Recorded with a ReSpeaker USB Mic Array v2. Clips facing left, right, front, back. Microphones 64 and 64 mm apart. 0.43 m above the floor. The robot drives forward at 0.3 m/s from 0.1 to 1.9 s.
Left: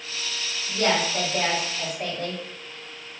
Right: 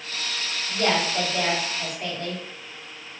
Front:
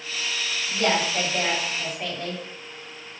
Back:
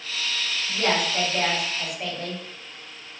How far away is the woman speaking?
About 1.7 m.